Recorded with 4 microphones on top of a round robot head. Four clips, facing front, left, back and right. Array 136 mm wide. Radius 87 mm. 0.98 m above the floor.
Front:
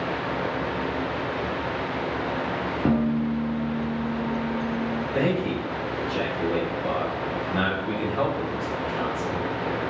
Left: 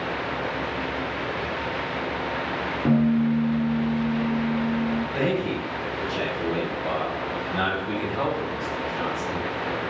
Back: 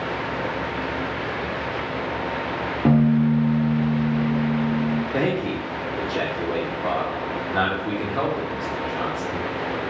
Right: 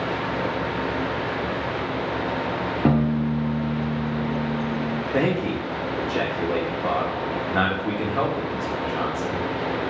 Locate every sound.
2.9 s a piano: 115° right, 0.6 m
5.1 s a man speaking: 125° right, 2 m